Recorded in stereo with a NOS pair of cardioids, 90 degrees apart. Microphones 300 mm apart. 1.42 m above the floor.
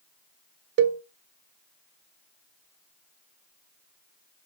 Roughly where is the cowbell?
Ahead right.